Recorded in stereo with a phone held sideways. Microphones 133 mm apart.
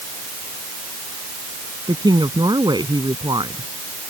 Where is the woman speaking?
35° right (ahead or behind).